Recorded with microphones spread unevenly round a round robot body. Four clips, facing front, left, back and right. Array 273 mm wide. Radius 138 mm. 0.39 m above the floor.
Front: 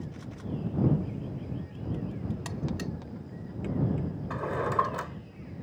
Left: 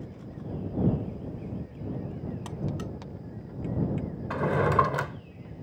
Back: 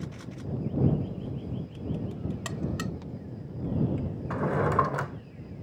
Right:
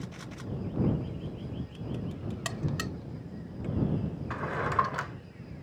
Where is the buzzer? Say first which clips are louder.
Right 2 dB, back 2 dB; 140° right.